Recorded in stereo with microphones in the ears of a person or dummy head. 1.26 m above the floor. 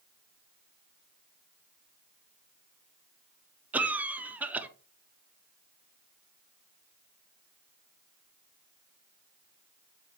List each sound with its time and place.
3.7 s a cough: 10° right (ahead or behind), 0.7 m